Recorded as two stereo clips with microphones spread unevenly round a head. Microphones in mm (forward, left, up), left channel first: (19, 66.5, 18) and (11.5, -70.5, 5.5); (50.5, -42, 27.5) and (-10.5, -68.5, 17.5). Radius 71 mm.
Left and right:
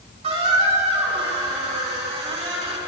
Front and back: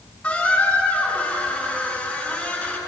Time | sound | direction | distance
0.2 | a squeak | 45° right | 5 m